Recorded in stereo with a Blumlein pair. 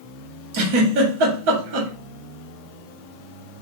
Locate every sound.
0.5 s a giggle: 45° right, 1.4 m